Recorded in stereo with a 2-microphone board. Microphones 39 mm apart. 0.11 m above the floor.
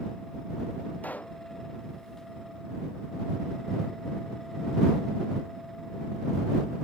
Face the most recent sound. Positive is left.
turn(degrees=45)  # may be behind; listen again after turning